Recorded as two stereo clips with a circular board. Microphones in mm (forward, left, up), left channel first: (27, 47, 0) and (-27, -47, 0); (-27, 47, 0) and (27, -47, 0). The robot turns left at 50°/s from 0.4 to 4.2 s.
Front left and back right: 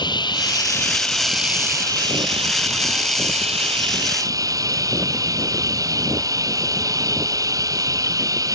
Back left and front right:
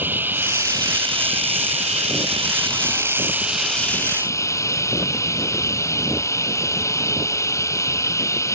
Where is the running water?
10° left; by 8.6 s straight behind.